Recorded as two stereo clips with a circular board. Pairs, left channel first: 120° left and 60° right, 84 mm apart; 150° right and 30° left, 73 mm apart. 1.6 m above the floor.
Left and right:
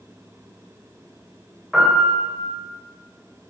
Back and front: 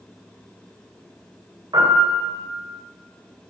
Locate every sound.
1.7 s a piano: 30° left, 3.5 m